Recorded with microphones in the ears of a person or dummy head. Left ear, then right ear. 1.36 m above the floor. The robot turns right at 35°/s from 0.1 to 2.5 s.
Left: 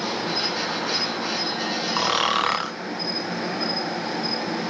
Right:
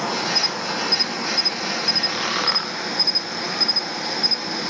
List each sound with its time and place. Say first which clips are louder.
0.0 s an insect: right 4 dB; 125° right, 1.1 m; by 4.7 s 40° right, 1.1 m
2.0 s snoring: left 1 dB; 50° left (ahead or behind), 1.1 m; by 2.7 s 30° left (ahead or behind), 1.1 m